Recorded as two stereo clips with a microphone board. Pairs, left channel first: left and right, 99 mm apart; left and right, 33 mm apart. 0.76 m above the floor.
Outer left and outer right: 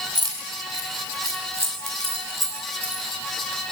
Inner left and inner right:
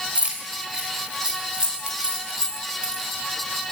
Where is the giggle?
No giggle in this recording.